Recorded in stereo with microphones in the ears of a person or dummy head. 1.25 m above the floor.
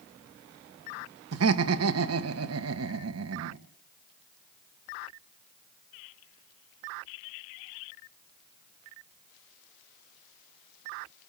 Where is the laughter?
75° right (ahead or behind), 1.4 m.